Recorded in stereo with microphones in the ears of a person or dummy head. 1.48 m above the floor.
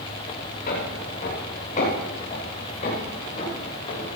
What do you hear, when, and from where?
0.7 s footsteps: 45° left (ahead or behind), 9 m; by 4.1 s 35° left (ahead or behind), 11.5 m